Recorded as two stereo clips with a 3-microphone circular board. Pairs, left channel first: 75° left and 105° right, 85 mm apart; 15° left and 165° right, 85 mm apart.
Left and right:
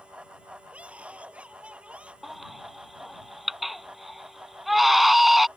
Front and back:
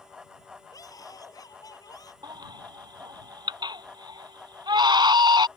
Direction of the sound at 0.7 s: 30° right.